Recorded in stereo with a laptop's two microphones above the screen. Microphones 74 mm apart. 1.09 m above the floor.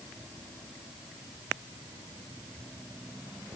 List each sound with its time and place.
Only background noise.